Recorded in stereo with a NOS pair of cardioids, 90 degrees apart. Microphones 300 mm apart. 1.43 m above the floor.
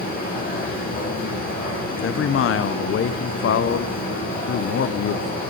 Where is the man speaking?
50° left, 0.8 m.